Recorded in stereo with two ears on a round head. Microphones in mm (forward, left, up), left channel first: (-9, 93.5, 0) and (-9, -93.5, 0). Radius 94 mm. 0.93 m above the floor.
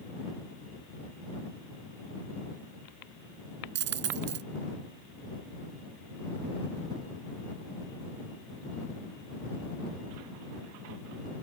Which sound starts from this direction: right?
A dropped coin, at 3.8 s.